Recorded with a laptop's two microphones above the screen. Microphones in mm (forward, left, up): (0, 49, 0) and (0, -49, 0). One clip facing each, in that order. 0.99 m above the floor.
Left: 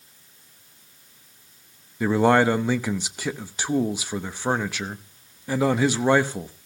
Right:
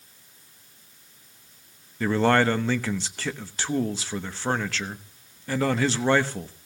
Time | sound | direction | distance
2.0 | a man speaking | 15° left (ahead or behind) | 0.9 m